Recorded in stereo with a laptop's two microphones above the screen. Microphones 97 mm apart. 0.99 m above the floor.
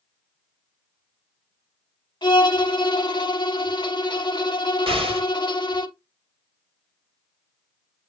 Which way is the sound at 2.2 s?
50° left (ahead or behind).